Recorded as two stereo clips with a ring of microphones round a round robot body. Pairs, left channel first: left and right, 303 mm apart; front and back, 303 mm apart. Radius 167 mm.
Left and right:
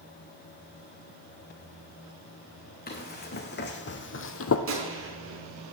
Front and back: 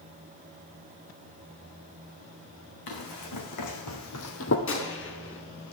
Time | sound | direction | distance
2.9 | running footsteps | 30° left | 3 m
4.7 | a gunshot | 45° right | 5 m